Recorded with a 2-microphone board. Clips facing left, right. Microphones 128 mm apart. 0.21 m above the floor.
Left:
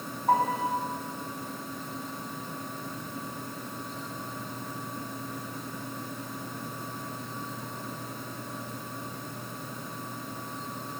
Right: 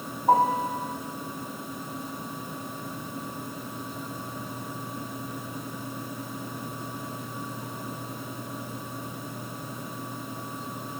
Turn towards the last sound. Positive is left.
turn(degrees=-25)  # may be behind; listen again after turning